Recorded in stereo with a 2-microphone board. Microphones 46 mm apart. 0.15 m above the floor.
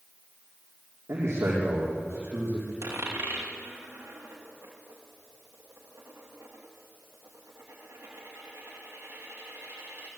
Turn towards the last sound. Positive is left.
turn(degrees=-80)